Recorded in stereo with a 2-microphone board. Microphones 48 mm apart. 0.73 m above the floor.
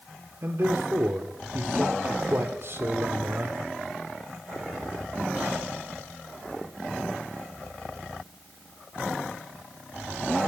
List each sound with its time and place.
0.4 s a man speaking: 50° right (ahead or behind), 1.7 m